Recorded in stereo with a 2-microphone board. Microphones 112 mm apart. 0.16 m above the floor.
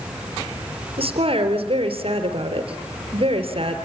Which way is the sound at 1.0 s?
55° right (ahead or behind).